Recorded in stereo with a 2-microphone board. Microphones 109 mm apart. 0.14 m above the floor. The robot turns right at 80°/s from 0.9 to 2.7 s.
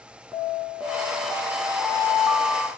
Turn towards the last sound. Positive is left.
turn(degrees=5)